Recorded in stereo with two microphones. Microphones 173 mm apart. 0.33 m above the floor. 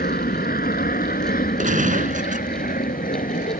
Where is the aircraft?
60° left (ahead or behind); by 3.6 s 50° left (ahead or behind).